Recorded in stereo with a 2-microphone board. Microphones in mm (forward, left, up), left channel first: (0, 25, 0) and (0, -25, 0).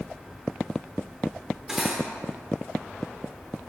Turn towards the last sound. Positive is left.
turn(degrees=-10)  # may be behind; listen again after turning